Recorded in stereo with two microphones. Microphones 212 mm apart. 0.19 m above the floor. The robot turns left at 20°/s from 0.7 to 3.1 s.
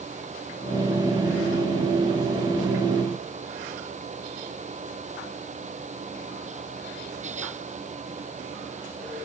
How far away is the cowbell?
No cowbell in this recording.